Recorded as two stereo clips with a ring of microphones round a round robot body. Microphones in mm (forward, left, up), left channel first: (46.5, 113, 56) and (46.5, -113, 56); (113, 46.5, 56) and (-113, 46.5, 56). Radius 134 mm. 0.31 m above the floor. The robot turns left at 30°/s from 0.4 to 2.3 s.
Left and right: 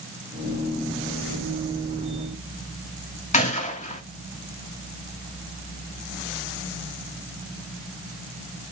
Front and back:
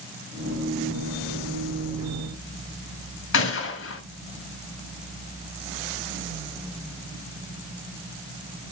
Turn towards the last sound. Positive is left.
turn(degrees=30)